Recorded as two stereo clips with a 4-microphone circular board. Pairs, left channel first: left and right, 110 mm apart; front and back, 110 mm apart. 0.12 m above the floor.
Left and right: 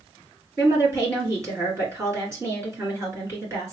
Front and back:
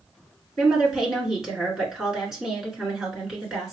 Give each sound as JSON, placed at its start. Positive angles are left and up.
{"t": 0.6, "sound": "a woman speaking", "azimuth_deg": -100, "distance_m": 1.8}